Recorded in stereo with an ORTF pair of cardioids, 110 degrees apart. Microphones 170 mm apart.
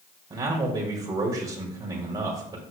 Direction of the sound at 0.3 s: 35° right.